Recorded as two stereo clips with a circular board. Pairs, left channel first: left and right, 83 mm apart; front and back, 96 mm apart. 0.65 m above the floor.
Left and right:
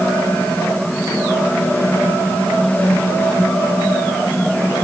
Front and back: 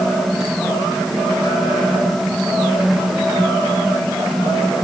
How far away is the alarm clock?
I don't hear an alarm clock.